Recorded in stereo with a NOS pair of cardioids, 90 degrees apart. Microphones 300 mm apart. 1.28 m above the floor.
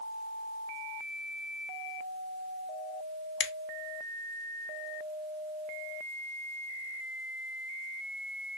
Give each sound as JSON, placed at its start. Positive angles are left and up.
{"t": 3.4, "sound": "a finger snap", "azimuth_deg": 40, "distance_m": 0.6}